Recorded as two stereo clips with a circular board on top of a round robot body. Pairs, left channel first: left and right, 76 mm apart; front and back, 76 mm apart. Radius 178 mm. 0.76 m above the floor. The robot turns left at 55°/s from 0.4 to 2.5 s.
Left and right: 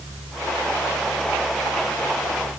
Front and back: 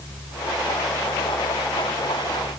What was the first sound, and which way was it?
Only background noise.